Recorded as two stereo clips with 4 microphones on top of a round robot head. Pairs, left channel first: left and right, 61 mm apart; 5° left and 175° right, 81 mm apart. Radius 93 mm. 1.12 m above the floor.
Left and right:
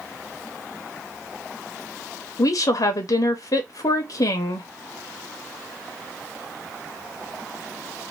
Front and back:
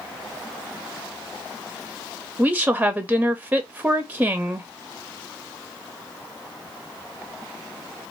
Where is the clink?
No clink in this recording.